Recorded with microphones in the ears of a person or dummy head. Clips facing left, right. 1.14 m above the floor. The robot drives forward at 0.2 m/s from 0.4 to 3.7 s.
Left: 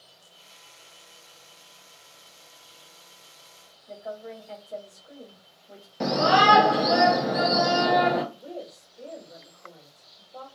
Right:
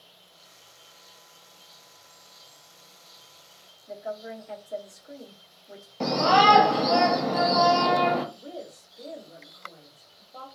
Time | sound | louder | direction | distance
3.9 | a woman speaking | right 2 dB | 5° right (ahead or behind) | 0.8 m
6.0 | a shout | even | 15° left (ahead or behind) | 0.6 m
8.3 | a woman speaking | left 1 dB | 30° left (ahead or behind) | 1.5 m